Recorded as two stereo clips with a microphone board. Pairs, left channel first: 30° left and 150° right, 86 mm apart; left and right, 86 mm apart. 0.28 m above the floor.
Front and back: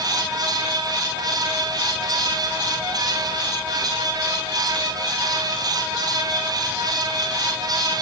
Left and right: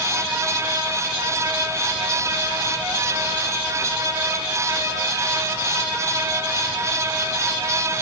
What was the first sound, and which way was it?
Only background noise.